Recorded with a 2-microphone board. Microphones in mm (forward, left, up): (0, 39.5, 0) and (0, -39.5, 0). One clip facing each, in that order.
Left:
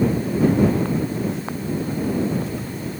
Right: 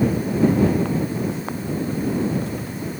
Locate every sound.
Only background noise.